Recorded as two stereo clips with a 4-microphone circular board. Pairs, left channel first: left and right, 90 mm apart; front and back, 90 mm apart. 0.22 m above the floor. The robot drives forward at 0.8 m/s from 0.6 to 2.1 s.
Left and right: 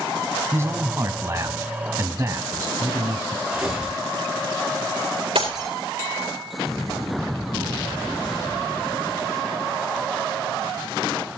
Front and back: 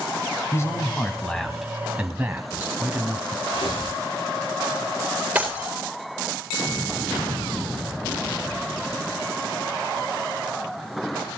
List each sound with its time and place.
0.5 s a man speaking: 45° right, 1.5 m; by 3.4 s 120° right, 1.3 m
3.5 s tearing paper: 5° right, 9.5 m
5.3 s breaking glass: 105° right, 4 m